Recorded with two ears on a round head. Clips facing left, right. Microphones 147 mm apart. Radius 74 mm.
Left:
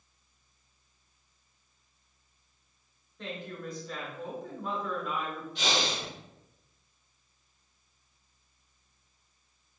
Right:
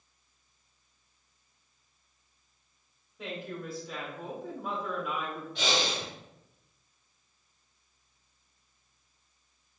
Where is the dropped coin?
I don't hear a dropped coin.